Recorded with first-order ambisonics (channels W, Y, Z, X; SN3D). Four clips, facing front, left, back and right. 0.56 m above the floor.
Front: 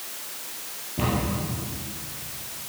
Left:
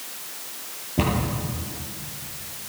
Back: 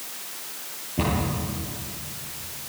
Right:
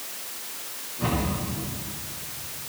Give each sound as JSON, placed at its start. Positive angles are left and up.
{"t": 1.0, "sound": "a cupboard door", "azimuth_deg": 100, "distance_m": 9.5}